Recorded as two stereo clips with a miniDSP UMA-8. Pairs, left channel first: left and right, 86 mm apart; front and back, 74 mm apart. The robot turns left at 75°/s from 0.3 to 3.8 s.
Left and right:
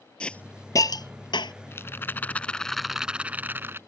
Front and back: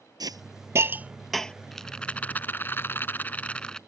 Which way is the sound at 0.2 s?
165° left.